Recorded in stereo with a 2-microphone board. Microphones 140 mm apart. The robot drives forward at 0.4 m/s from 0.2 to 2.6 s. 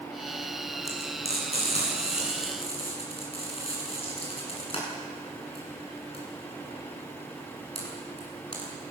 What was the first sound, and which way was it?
Frying, 50° left (ahead or behind).